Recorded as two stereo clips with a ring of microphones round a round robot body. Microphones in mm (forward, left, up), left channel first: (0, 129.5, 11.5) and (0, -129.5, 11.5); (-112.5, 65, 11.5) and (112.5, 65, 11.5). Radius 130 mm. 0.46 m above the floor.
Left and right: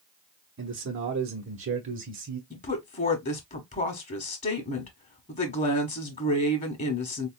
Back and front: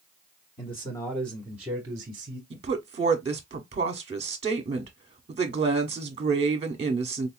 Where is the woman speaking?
45° left, 1.1 m.